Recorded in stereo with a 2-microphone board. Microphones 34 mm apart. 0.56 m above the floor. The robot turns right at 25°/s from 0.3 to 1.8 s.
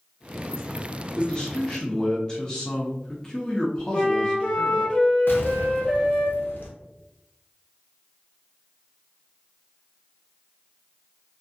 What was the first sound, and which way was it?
A man speaking, 20° left (ahead or behind).